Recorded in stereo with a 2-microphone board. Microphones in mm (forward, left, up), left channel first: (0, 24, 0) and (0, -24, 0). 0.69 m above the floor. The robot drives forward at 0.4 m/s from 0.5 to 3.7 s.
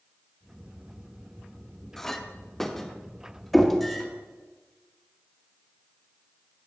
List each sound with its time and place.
2.0 s a clink: 10° left (ahead or behind), 0.6 m; by 4.1 s 5° left (ahead or behind), 1.3 m
3.5 s knocking: 5° left (ahead or behind), 1.1 m